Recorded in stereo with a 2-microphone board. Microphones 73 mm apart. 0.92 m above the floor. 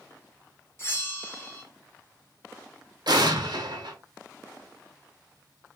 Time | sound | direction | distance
0.8 | a bell | 35° left (ahead or behind) | 0.9 m
3.1 | an explosion | 75° right (ahead or behind) | 0.9 m